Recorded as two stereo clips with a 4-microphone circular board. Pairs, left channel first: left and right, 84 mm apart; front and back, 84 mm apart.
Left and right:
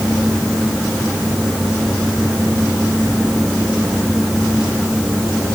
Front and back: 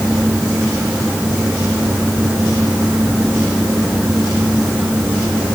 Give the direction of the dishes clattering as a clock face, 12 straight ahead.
No dishes clattering in this recording.